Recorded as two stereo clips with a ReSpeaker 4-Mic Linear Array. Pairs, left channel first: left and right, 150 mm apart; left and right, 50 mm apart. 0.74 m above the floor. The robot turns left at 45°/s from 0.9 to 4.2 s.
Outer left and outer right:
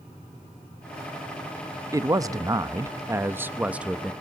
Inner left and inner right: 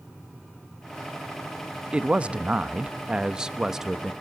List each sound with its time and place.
1.9 s a man speaking: 20° right (ahead or behind), 0.7 m; by 4.1 s 5° right (ahead or behind), 0.7 m